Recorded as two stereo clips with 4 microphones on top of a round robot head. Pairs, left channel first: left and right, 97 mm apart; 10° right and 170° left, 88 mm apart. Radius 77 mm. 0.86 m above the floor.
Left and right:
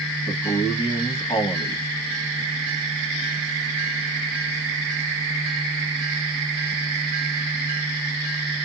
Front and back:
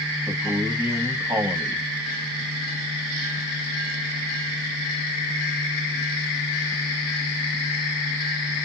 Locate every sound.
0.3 s a man speaking: 110° left, 1.4 m